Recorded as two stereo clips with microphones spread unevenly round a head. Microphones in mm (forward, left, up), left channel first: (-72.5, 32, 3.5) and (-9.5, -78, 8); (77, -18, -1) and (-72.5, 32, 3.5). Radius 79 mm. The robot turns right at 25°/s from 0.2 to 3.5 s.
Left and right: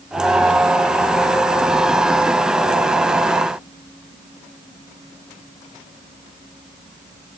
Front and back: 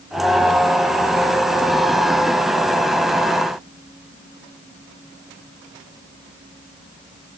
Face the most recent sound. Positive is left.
No sound to turn to.